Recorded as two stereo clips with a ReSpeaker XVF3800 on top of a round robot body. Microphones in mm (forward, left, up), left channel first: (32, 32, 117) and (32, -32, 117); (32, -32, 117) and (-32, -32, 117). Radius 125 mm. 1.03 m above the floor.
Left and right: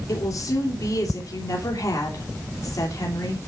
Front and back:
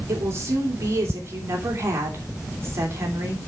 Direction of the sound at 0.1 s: 130° left.